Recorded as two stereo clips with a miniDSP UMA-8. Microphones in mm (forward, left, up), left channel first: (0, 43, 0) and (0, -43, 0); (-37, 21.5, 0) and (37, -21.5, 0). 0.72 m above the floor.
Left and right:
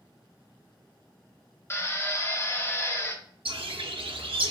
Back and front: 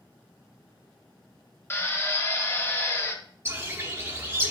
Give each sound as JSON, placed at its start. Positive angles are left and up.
{"t": 1.7, "sound": "a drill", "azimuth_deg": 115, "distance_m": 0.6}
{"t": 3.5, "sound": "a bird", "azimuth_deg": -95, "distance_m": 0.7}